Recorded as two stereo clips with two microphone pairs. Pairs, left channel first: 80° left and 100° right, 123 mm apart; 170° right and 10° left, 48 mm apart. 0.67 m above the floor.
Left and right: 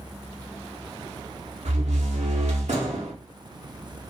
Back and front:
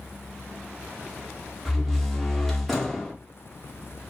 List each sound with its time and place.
1.6 s a door slam: 85° right, 0.9 m